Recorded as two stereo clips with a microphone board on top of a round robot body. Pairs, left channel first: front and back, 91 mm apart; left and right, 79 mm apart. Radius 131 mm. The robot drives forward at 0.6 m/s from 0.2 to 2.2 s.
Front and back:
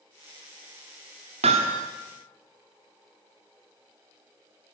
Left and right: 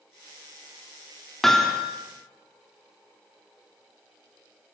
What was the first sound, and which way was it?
Hammering, 175° left.